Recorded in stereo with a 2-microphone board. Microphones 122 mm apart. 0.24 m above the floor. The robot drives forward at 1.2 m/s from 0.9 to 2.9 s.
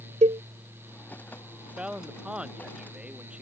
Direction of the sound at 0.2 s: 75° right (ahead or behind).